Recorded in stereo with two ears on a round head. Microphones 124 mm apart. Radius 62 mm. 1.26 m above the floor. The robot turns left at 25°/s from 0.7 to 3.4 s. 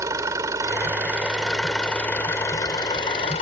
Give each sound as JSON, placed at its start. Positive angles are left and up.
{"t": 0.0, "sound": "an engine running", "azimuth_deg": -155}